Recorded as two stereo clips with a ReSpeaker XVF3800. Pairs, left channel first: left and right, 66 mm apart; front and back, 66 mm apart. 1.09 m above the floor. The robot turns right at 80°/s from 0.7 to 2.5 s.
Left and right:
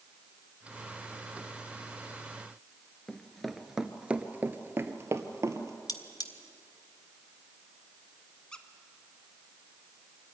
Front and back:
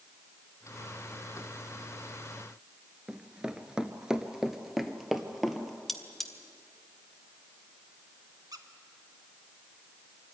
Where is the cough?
No cough in this recording.